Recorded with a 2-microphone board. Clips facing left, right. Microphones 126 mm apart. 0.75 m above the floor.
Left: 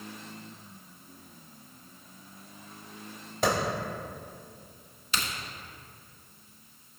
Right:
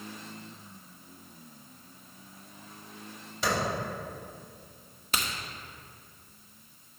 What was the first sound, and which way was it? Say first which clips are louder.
A clap: left 4 dB; 50° left (ahead or behind).